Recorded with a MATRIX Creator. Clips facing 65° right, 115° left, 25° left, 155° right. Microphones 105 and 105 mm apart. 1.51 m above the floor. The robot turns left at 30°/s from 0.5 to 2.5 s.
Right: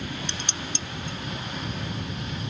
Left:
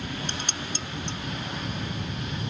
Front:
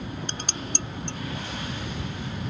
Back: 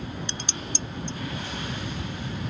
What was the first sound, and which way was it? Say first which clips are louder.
Dishes clattering: left 1 dB, front 1 dB; 65° left.